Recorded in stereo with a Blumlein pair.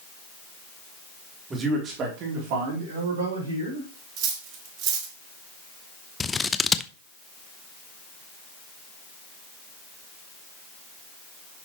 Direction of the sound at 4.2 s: 40° right.